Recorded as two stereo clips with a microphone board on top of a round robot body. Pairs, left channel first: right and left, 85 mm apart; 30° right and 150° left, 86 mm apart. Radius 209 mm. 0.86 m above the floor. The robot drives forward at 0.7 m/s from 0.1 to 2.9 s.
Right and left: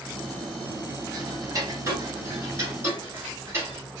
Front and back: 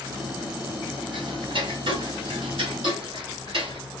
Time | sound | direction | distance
1.1 | ticking | 135° left | 2.5 m